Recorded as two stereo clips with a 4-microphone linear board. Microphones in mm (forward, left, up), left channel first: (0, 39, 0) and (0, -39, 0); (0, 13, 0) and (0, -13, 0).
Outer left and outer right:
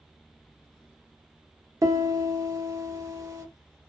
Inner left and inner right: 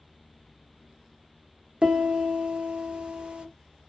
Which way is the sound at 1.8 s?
40° right (ahead or behind).